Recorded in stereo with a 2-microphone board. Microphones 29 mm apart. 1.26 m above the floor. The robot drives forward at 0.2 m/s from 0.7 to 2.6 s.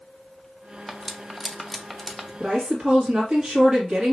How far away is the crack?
No crack in this recording.